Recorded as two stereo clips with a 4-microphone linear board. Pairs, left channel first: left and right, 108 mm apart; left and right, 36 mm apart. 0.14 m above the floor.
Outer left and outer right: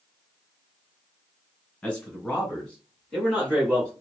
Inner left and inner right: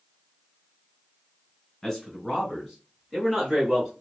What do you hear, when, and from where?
1.8 s a man speaking: 10° left (ahead or behind), 1.4 m; by 3.9 s centre (ahead or behind), 1.9 m